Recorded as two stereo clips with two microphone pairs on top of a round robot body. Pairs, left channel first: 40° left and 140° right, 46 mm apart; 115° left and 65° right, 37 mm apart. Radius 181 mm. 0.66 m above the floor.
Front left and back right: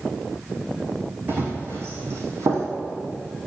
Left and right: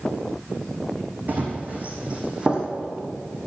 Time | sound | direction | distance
1.3 | running footsteps | 100° right | 1.8 m